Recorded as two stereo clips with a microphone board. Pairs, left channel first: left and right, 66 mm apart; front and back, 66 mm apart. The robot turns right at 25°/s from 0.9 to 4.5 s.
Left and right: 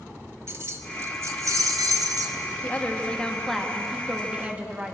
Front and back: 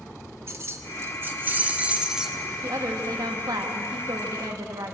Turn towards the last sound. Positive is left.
turn(degrees=-160)